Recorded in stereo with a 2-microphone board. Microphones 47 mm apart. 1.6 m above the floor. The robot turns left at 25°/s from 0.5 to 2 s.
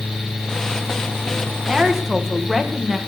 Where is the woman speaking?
15° right (ahead or behind), 1.7 m; by 3.0 s 5° right (ahead or behind), 1.7 m.